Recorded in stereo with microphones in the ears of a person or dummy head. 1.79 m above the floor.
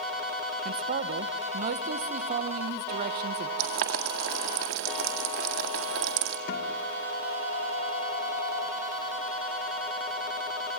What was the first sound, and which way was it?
A man speaking, 50° right (ahead or behind).